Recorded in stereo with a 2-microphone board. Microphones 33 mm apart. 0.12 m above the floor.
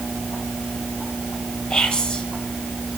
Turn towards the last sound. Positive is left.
turn(degrees=30)  # may be behind; listen again after turning